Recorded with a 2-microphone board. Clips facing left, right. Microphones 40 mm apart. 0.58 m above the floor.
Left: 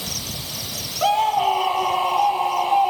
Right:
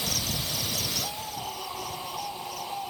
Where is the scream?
60° left (ahead or behind); by 2.9 s 55° left (ahead or behind).